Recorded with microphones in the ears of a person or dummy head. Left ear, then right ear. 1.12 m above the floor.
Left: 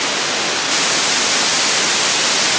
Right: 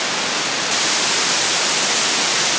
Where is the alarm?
I don't hear an alarm.